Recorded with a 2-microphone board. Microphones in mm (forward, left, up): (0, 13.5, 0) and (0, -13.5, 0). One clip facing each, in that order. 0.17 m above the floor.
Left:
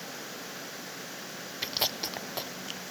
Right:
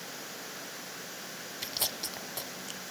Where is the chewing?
25° left (ahead or behind), 1.0 m.